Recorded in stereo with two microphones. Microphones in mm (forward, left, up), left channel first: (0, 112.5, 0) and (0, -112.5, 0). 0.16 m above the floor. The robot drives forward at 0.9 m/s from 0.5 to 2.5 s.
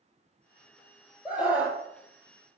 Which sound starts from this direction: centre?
A scream, at 1.2 s.